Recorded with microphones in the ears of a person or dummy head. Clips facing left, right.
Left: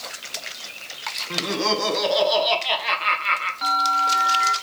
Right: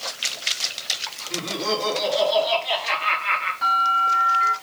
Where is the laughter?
70° left (ahead or behind), 2.5 m; by 3.5 s 50° left (ahead or behind), 1.7 m.